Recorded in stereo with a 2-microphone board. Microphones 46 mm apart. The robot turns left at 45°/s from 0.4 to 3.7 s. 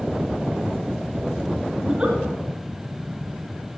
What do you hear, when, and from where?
1.8 s a giggle: 10° right (ahead or behind), 3.5 m; by 2.2 s 25° right (ahead or behind), 3.5 m